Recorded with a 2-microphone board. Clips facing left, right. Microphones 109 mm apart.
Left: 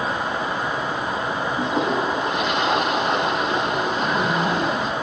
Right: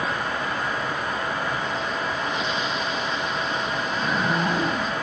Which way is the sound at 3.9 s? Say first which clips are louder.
Left 3 dB; centre (ahead or behind).